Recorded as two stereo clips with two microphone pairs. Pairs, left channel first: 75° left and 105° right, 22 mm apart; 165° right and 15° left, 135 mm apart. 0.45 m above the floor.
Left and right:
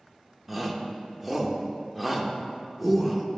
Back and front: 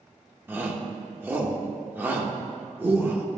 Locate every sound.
0.5 s a shout: 25° right, 0.9 m